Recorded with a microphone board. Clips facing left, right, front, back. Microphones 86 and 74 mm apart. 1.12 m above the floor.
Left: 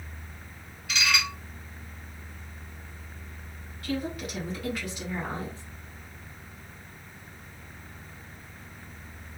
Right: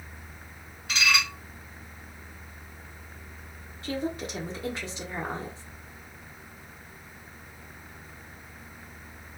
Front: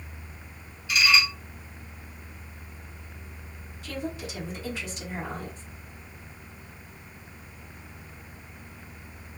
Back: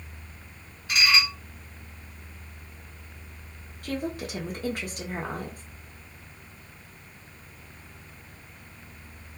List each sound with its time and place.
0.9 s dishes clattering: 140° right, 2.0 m
3.8 s a woman speaking: 150° right, 1.4 m